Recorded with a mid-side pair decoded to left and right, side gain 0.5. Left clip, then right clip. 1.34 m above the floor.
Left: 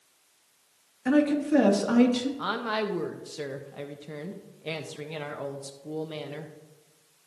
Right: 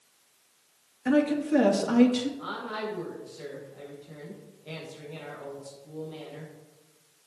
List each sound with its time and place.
1.1 s a woman speaking: 5° left, 3 m
2.4 s a woman speaking: 65° left, 1.5 m